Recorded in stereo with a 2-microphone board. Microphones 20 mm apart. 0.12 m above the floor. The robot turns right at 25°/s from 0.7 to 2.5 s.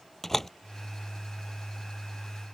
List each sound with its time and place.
0.2 s a door slam: 15° left (ahead or behind)